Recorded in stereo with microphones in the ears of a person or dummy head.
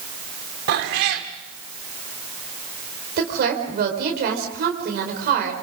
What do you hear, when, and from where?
0.7 s a cat meowing: 60° right (ahead or behind), 2 m
3.2 s a woman speaking: 60° right (ahead or behind), 4.5 m